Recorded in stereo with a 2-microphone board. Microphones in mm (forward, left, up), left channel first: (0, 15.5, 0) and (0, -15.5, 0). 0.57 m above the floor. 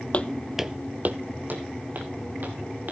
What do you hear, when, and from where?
0.1 s footsteps: 40° left (ahead or behind), 0.9 m; by 2.9 s 60° right (ahead or behind), 3.5 m